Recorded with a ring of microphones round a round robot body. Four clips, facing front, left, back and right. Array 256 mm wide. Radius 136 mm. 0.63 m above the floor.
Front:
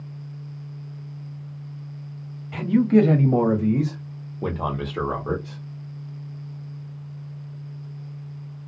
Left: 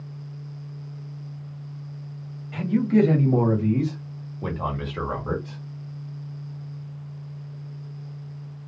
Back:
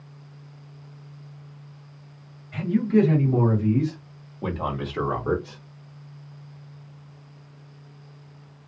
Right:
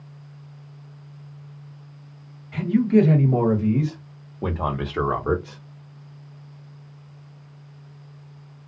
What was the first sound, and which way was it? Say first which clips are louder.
A man speaking: right 2 dB, front 3 dB; 5° right.